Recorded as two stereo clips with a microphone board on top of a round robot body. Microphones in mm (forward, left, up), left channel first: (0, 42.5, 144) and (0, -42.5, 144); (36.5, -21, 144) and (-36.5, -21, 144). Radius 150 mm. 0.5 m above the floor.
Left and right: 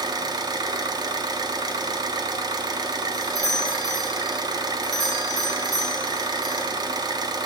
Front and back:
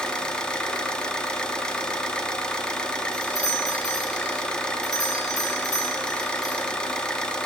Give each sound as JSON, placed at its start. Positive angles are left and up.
{"t": 0.0, "sound": "an engine running", "azimuth_deg": -75, "distance_m": 1.1}
{"t": 3.1, "sound": "a doorbell", "azimuth_deg": -45, "distance_m": 2.5}